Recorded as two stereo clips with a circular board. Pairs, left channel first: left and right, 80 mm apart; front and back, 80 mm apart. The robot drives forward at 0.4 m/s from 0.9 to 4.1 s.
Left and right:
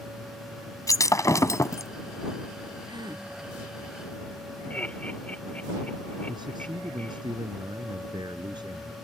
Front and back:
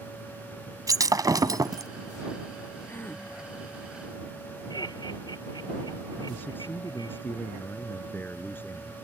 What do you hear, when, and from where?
0.9 s breaking glass: 135° left; by 1.9 s 140° left
2.9 s a gasp: 65° right
4.7 s laughter: 20° left
6.3 s a man speaking: 65° right